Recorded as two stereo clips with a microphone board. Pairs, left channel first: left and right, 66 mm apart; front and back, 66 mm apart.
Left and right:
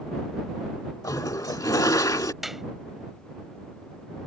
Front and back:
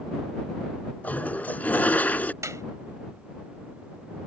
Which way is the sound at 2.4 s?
175° right.